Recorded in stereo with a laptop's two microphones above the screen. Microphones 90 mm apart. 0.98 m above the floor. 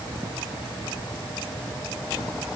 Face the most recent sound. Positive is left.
No sound to turn to.